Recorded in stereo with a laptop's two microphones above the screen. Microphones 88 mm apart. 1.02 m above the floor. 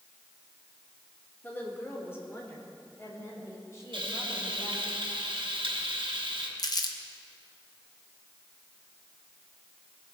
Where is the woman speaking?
20° left (ahead or behind), 2.5 m; by 4.9 s 35° left (ahead or behind), 6 m.